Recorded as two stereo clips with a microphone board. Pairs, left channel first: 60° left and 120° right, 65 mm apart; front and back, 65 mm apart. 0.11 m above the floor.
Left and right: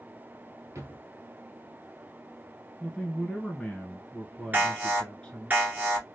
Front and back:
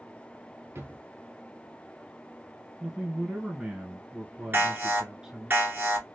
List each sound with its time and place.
0.8 s a drawer: 150° right, 1.5 m
2.8 s a man speaking: 115° left, 1.2 m
4.5 s an alarm: 160° right, 1.9 m